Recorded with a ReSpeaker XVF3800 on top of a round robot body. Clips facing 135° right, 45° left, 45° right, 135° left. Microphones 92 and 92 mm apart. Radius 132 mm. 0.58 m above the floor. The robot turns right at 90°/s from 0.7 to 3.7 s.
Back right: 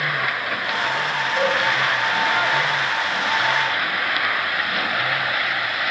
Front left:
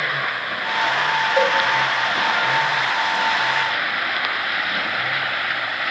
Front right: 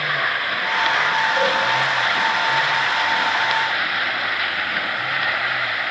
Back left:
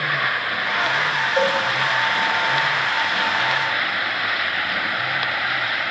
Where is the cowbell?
80° left, 5.5 m; by 1.5 s 95° left, 5.5 m.